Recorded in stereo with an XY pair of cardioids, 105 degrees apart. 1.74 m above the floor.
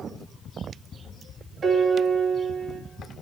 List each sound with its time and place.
1.6 s a piano: 45° right, 3.5 m